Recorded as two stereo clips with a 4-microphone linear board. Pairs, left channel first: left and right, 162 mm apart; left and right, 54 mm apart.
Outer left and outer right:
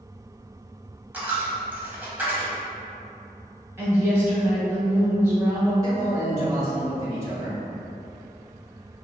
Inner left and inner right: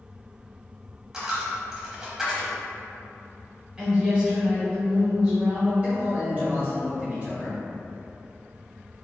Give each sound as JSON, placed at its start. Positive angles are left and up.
{"t": 1.1, "sound": "a dropped coin", "side_deg": -10, "distance_m": 0.9}
{"t": 3.8, "sound": "a woman speaking", "side_deg": -15, "distance_m": 0.9}
{"t": 5.8, "sound": "a man speaking", "side_deg": -20, "distance_m": 1.6}